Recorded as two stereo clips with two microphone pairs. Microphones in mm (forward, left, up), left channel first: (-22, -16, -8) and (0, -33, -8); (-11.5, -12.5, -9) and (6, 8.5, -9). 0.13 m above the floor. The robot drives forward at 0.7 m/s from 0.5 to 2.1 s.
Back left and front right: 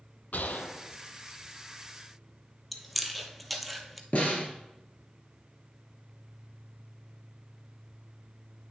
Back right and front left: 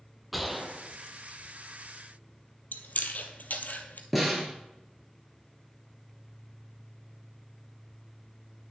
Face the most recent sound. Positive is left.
turn(degrees=135)